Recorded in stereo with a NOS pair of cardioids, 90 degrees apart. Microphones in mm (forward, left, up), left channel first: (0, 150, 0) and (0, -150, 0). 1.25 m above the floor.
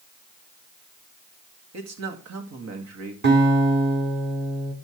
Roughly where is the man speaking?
Ahead right.